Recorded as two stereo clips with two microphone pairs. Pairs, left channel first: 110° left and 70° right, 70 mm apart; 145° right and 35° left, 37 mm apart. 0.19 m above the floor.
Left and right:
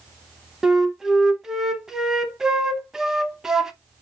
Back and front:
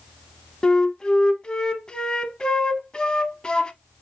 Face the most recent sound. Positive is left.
turn(degrees=-145)